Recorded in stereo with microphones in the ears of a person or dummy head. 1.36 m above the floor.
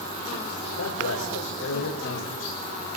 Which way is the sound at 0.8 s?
85° left.